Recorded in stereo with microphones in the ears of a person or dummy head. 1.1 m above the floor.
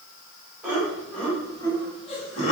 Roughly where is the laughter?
Centre.